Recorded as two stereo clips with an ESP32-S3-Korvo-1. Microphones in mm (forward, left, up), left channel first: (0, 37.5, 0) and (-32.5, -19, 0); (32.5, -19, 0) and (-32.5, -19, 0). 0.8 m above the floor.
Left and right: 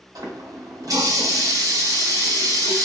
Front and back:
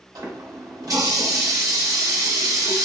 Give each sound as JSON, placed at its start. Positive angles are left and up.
{"t": 0.1, "sound": "a running tap", "azimuth_deg": -145, "distance_m": 1.1}